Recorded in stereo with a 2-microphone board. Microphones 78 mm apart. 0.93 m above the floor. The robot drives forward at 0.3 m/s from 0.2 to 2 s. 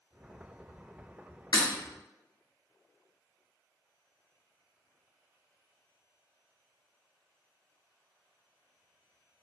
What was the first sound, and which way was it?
Breaking glass, 65° left (ahead or behind).